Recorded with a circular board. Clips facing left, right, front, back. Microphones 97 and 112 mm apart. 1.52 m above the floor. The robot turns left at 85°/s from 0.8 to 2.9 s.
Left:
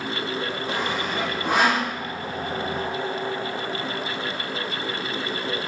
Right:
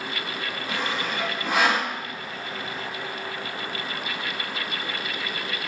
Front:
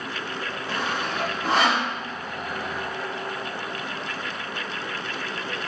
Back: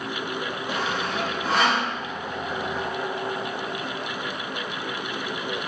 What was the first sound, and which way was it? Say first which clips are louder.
Sawing: even, even; 125° left.